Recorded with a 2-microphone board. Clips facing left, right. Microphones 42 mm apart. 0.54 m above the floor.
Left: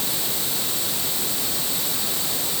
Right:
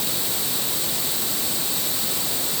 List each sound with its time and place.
Only background noise.